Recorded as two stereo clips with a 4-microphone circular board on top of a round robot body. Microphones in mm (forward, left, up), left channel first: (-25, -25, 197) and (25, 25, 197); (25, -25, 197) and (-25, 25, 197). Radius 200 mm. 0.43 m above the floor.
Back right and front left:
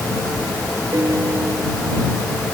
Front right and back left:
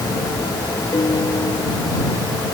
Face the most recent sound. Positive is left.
turn(degrees=-5)